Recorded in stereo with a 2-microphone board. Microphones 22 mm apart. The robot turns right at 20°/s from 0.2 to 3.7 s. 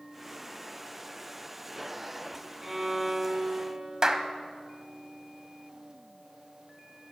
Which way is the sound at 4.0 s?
30° right (ahead or behind).